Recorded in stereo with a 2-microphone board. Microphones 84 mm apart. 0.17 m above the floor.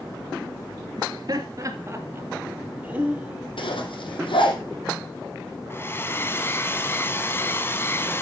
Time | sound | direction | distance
1.0 | laughter | 60° right (ahead or behind) | 2.5 m
3.6 | a zipper | 80° left | 3.5 m
5.7 | a hair dryer | 25° left (ahead or behind) | 1.3 m